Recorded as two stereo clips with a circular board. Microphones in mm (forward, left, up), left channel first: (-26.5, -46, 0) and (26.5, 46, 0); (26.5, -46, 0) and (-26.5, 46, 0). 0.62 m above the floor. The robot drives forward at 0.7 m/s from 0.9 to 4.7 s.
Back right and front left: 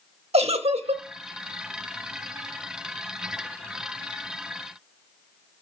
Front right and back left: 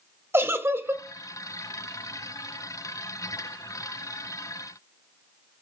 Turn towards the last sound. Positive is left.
turn(degrees=160)